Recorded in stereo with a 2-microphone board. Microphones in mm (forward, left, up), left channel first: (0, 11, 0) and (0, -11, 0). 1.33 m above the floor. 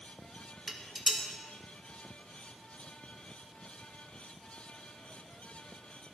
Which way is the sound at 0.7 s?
5° right (ahead or behind).